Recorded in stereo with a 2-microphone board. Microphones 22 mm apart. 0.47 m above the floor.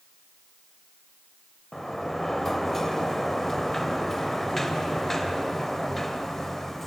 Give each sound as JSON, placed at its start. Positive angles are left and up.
{"t": 1.7, "sound": "a sliding door", "side_deg": 15, "distance_m": 0.6}